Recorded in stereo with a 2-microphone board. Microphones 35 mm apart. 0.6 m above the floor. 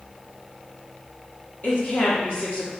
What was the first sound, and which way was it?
A woman speaking, 45° left (ahead or behind).